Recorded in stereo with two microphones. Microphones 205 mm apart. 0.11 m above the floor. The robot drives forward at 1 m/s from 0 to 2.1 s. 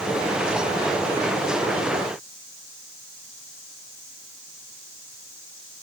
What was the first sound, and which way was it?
Only background noise.